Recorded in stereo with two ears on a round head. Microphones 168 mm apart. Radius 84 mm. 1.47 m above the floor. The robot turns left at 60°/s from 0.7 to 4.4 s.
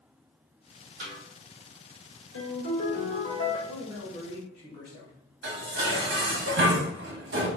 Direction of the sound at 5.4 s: 60° right (ahead or behind).